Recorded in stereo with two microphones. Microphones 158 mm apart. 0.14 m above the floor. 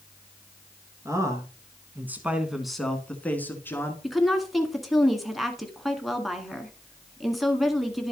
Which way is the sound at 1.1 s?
25° right (ahead or behind).